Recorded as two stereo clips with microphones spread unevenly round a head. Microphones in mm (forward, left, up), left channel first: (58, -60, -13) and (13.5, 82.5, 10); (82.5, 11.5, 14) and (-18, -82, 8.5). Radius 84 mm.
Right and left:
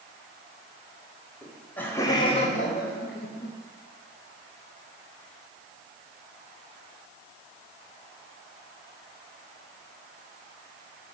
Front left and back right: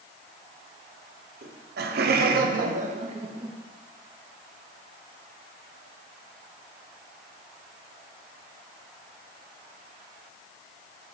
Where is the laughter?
160° right, 1.1 m; by 3.5 s 75° right, 0.9 m.